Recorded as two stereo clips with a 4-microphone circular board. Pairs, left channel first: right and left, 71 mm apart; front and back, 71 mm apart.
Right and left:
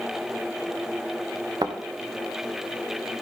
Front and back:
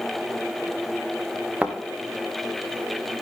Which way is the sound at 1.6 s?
110° left.